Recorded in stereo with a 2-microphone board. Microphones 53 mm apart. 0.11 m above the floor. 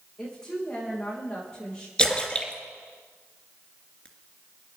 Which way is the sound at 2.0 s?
15° left (ahead or behind).